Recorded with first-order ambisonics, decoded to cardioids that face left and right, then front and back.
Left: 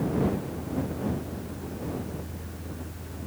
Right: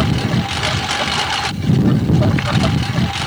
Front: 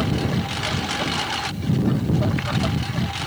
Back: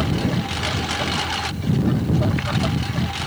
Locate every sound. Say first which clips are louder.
0.0 s a lawn mower: right 9 dB, back 1 dB; 90° right